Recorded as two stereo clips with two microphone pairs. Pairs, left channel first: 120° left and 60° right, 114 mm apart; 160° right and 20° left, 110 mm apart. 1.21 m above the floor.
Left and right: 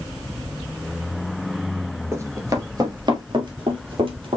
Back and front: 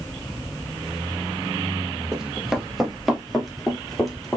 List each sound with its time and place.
2.1 s running footsteps: 55° right, 1.2 m; by 4.4 s 70° right, 2.0 m